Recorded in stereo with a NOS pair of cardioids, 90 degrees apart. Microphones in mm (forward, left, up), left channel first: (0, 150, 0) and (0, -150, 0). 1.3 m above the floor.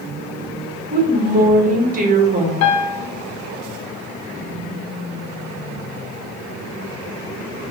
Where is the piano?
65° left, 0.6 m.